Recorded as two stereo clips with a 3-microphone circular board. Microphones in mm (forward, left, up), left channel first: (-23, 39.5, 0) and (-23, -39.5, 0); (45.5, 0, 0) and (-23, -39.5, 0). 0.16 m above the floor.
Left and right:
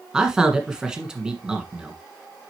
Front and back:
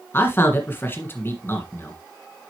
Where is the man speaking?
15° right, 1.7 m.